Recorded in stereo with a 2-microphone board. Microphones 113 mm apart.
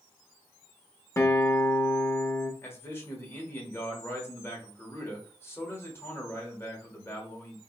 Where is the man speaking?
20° left (ahead or behind), 1.0 m.